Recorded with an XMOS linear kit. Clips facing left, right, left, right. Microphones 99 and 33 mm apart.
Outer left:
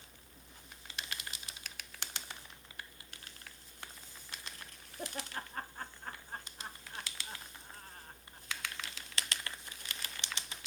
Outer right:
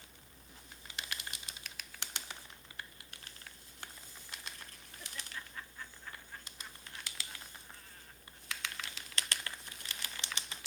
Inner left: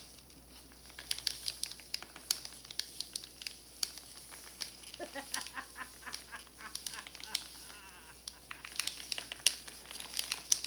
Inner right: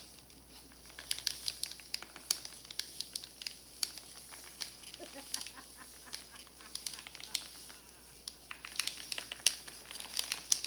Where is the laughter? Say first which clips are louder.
Outer left 7 dB, inner left 5 dB; 50° left (ahead or behind); by 9.0 s 40° left (ahead or behind).